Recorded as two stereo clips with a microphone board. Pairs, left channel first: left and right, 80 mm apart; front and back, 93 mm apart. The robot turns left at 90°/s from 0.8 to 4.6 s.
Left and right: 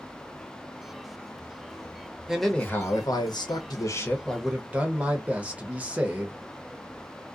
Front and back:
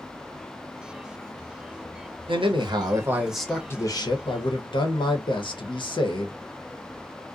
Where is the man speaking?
170° right, 0.8 m; by 6.4 s 20° right, 0.8 m.